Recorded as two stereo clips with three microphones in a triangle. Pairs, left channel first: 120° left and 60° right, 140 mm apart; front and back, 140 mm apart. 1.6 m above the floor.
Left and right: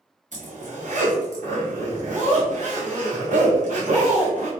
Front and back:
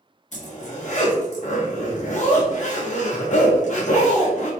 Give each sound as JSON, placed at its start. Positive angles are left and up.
{"t": 0.3, "sound": "a zipper", "azimuth_deg": -30, "distance_m": 0.8}